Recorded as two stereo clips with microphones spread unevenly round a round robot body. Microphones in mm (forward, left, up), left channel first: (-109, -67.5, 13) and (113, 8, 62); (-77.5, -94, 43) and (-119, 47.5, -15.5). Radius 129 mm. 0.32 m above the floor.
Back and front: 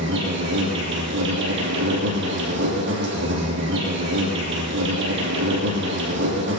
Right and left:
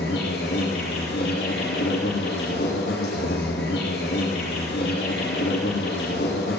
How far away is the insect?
About 5 m.